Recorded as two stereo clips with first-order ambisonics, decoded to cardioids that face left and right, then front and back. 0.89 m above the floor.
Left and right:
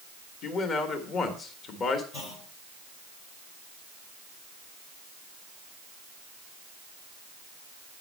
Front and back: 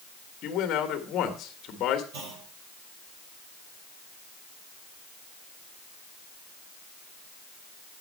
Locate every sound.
0.4 s a man speaking: 40° left, 1.6 m
2.1 s a clunk: 155° left, 3.5 m